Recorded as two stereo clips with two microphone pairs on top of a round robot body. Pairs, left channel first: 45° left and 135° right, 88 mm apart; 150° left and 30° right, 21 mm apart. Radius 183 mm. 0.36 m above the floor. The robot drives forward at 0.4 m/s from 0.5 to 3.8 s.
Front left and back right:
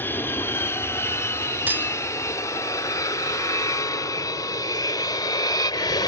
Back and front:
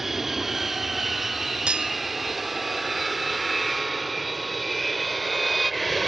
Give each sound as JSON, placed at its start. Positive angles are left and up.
{"t": 0.0, "sound": "an aircraft", "azimuth_deg": 30}
{"t": 1.7, "sound": "cutlery clinking", "azimuth_deg": -60}